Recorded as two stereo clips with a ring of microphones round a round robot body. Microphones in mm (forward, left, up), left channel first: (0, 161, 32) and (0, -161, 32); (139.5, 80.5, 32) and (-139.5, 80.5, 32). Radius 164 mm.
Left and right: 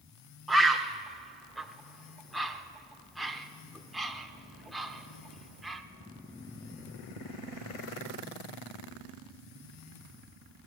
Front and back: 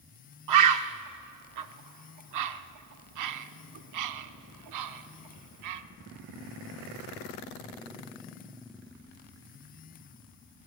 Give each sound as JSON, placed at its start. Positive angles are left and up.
{"t": 0.5, "sound": "a bird", "azimuth_deg": 180, "distance_m": 0.6}